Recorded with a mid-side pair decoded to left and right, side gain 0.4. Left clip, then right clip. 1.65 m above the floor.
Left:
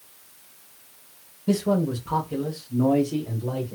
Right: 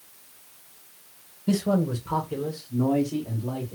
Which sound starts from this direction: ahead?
A man speaking, at 1.5 s.